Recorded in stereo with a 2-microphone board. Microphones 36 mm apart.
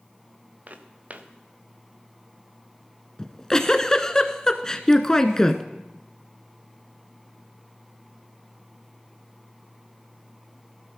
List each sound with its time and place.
0.7 s footsteps: 45° right (ahead or behind), 1.4 m
3.2 s a giggle: 20° left (ahead or behind), 0.9 m